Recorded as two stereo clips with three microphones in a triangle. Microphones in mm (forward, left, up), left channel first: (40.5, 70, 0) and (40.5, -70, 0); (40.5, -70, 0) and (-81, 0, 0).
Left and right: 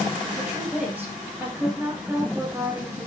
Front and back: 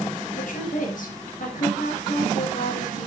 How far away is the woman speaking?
About 4.5 m.